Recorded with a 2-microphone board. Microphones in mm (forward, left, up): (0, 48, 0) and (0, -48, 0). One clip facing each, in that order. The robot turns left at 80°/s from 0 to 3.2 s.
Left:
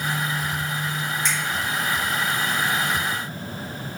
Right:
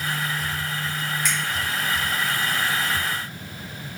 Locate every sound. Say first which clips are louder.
1.2 s a finger snap: even; 30° left (ahead or behind), 1.4 m; by 1.4 s 35° left (ahead or behind), 1.4 m